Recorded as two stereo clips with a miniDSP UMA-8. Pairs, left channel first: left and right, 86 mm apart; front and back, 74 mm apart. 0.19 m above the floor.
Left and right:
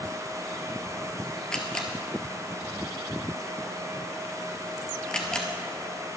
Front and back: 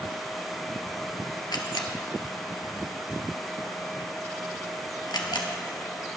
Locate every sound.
1.5 s a camera shutter: 10° left, 1.4 m